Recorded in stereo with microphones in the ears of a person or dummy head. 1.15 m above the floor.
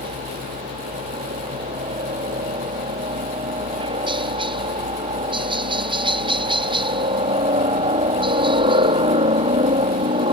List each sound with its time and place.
0.0 s a helicopter: 25° right (ahead or behind)